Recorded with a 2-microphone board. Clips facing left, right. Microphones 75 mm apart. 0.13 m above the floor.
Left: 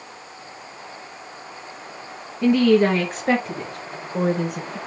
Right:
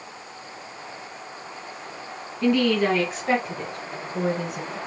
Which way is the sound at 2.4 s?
25° left (ahead or behind).